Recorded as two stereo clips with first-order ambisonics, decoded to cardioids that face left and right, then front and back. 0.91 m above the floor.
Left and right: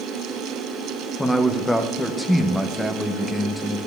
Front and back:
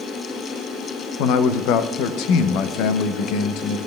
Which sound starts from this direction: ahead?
A man speaking, at 1.2 s.